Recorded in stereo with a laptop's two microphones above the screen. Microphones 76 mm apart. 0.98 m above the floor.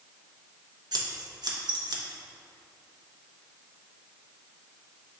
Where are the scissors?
60° right (ahead or behind), 0.6 m.